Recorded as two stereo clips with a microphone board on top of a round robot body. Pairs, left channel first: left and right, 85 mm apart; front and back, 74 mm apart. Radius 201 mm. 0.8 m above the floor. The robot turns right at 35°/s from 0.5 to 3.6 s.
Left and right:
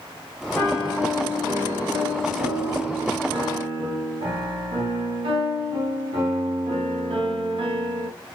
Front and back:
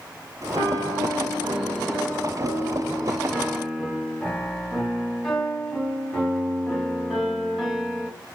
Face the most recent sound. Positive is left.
turn(degrees=-90)